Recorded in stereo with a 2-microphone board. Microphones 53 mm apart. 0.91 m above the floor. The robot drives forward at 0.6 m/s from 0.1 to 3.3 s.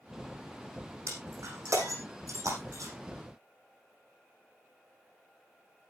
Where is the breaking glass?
75° right (ahead or behind), 8 m; by 2.9 s 85° right, 7.5 m.